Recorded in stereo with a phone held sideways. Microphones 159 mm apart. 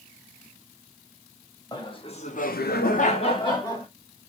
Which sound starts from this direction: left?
Laughter, at 1.7 s.